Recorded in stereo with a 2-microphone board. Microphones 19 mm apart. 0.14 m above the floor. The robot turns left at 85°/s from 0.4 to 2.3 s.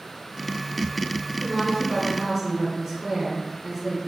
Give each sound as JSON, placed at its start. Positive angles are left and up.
{"t": 1.4, "sound": "a woman speaking", "side_deg": -20, "distance_m": 1.3}